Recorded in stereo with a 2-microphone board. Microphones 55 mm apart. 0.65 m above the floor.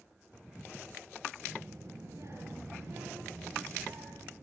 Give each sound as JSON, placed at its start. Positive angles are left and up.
{"t": 1.4, "sound": "a child speaking", "side_deg": -60, "distance_m": 7.0}